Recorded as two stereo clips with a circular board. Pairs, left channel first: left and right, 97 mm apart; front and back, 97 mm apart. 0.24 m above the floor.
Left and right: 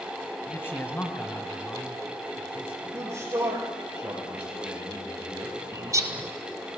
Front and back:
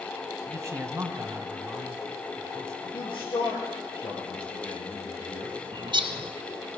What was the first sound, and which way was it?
A man speaking, 145° left.